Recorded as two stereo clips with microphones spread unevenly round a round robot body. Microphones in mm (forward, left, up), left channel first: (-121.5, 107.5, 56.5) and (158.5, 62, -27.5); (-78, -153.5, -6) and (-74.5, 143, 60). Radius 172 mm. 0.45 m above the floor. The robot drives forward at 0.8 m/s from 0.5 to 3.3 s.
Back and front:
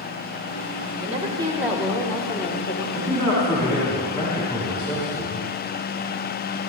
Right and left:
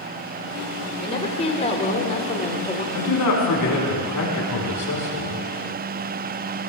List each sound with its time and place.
1.0 s a woman speaking: 40° right, 1.7 m; by 2.8 s 125° right, 1.6 m
2.9 s a man speaking: 100° right, 4.5 m; by 5.5 s 105° right, 4.5 m